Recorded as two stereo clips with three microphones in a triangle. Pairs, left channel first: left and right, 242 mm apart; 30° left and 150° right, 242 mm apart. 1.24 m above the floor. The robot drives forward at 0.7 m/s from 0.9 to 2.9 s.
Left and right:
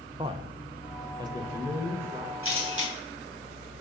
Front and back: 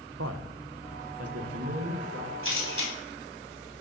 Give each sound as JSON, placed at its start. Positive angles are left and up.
{"t": 0.2, "sound": "a man speaking", "azimuth_deg": -160, "distance_m": 0.7}
{"t": 2.4, "sound": "a camera shutter", "azimuth_deg": -120, "distance_m": 3.0}